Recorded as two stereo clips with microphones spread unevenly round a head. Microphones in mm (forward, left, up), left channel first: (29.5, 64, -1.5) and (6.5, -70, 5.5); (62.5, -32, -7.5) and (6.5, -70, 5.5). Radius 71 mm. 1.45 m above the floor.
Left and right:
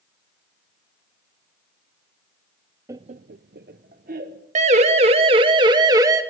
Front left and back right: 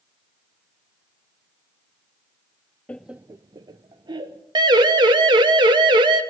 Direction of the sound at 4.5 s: 145° right.